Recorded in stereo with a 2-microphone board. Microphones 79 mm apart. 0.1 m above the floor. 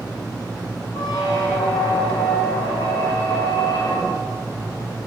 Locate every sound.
0.9 s a squeak: 80° left, 4.5 m